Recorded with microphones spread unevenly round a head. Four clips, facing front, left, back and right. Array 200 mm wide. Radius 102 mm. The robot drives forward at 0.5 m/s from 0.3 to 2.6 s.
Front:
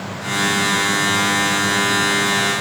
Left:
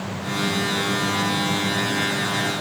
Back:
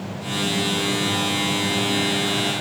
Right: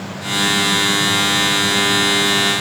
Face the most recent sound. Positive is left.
No sound to turn to.